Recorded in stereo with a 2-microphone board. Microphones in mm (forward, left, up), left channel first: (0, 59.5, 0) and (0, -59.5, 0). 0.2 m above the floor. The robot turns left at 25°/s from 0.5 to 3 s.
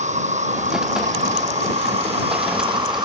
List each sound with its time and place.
0.0 s an insect: 80° right; by 3.1 s 140° right